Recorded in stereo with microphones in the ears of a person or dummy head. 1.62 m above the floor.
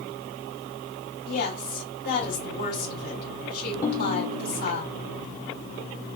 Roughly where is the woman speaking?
Left.